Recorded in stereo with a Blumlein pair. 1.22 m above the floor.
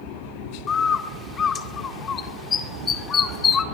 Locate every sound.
0.7 s a bird: 20° left, 2 m